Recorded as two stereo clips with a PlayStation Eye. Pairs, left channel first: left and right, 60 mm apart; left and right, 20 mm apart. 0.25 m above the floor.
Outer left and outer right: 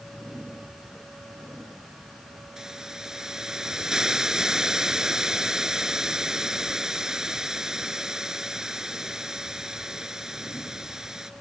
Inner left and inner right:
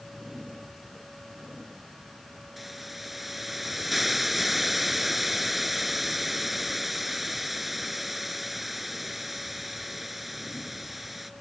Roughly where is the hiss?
Centre.